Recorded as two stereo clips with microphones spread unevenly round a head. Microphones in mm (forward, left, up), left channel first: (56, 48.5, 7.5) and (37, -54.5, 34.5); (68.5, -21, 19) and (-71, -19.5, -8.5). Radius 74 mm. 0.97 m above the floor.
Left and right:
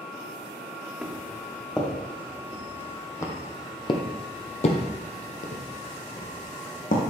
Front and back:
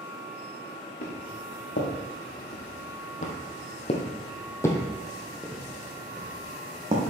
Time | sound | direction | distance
1.0 | footsteps | 15° right | 3.5 m